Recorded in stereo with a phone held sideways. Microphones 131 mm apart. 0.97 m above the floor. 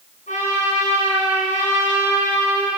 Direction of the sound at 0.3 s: 80° left.